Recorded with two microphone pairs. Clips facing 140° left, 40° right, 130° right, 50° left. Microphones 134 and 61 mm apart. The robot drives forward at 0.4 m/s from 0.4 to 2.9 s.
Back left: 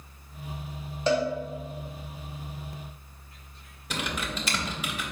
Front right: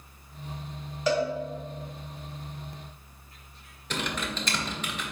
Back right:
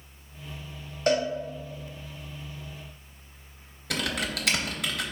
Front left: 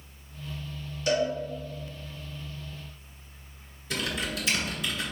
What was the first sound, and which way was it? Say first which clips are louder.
A cowbell: back left 1 dB, back right 1 dB; 160° right.